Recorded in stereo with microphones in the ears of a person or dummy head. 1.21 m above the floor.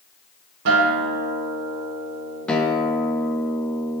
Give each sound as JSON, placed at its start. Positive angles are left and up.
{"t": 0.7, "sound": "a guitar", "side_deg": -55, "distance_m": 1.3}
{"t": 2.5, "sound": "a guitar", "side_deg": 5, "distance_m": 0.6}